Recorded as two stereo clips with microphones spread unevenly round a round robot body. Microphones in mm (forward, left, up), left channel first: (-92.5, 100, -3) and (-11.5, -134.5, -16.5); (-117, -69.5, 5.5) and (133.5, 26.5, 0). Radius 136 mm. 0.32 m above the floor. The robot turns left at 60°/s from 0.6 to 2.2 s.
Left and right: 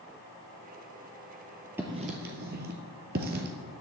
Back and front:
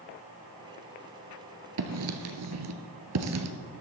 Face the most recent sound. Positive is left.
turn(degrees=-10)